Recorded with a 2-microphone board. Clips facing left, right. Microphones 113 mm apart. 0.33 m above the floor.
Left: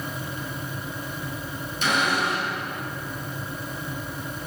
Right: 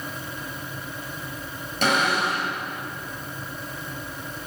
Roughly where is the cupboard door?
Right.